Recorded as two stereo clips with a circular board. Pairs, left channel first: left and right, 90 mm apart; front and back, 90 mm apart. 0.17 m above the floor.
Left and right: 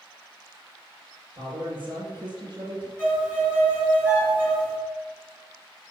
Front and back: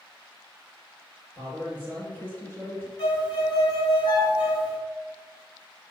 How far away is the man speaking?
About 4 m.